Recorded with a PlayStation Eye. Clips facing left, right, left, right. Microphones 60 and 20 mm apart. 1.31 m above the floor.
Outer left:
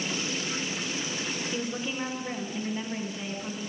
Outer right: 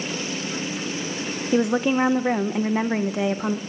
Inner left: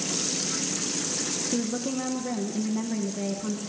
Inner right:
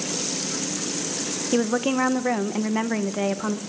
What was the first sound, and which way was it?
A woman speaking, 75° right (ahead or behind).